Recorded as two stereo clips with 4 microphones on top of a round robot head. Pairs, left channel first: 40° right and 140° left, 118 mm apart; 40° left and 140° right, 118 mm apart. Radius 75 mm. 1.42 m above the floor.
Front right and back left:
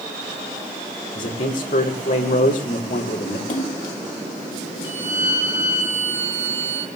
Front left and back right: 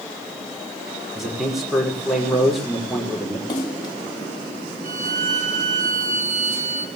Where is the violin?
150° right, 7 m.